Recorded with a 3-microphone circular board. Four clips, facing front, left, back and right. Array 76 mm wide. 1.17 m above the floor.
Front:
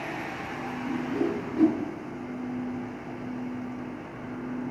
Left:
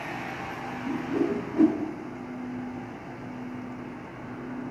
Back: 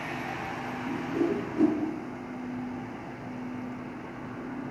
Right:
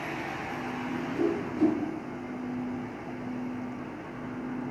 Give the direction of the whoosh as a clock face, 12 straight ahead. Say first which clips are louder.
Left 2 dB, even; 9 o'clock.